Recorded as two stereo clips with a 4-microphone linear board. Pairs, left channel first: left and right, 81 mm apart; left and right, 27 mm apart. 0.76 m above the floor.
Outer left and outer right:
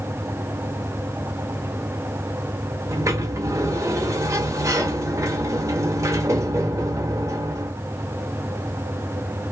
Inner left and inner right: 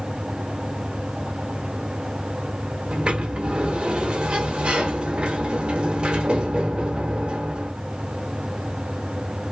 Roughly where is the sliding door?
Right.